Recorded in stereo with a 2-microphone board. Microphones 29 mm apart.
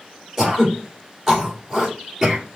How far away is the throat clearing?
About 2.5 m.